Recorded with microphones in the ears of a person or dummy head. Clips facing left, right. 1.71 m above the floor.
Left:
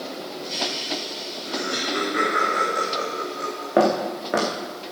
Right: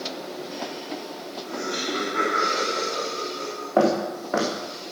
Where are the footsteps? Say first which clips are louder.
Left 1 dB; 15° left (ahead or behind), 4 m.